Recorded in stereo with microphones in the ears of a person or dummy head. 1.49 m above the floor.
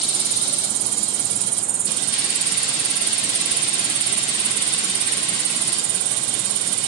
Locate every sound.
0.0 s an insect: 65° right (ahead or behind), 2.5 m